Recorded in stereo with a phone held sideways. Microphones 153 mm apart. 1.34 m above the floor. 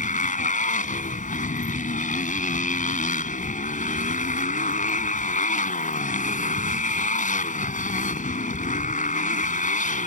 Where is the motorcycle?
60° left (ahead or behind).